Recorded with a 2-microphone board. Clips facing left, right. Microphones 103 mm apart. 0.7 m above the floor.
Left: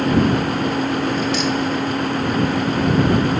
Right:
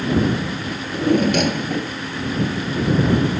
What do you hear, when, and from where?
0.7 s a drawer: 55° right (ahead or behind)